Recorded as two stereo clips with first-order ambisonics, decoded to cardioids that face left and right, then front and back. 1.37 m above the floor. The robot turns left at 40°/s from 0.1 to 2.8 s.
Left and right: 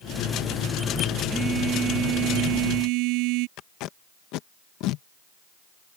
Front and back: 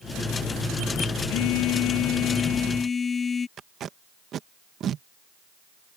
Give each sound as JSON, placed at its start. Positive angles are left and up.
{"t": 1.3, "sound": "a phone buzzing", "azimuth_deg": -10}
{"t": 3.6, "sound": "tape being pulled", "azimuth_deg": 125}